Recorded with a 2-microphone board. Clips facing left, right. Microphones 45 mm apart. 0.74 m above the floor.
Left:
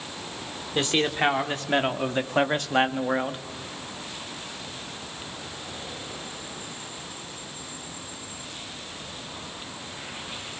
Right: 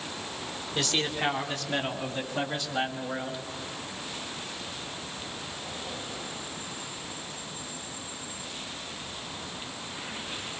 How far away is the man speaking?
About 2.5 m.